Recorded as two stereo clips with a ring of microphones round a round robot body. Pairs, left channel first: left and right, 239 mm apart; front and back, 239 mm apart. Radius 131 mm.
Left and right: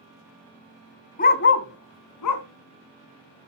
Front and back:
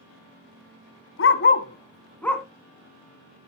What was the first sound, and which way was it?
A dog barking, 35° left.